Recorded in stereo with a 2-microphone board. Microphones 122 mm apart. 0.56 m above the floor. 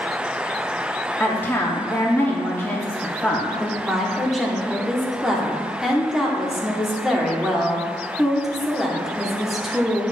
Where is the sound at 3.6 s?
Centre (ahead or behind), 1.0 m.